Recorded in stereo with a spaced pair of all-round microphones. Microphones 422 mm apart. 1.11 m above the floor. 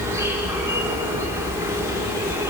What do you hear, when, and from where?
0.0 s an insect: 5° right (ahead or behind), 4 m